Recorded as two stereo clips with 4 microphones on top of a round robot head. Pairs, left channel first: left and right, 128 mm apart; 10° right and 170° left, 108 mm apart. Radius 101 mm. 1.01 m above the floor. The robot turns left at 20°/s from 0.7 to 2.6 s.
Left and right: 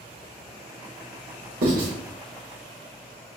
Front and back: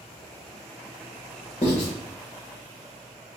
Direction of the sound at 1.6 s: 65° right.